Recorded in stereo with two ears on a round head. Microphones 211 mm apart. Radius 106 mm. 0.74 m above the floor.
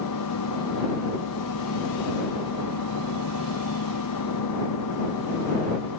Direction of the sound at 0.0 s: 85° left.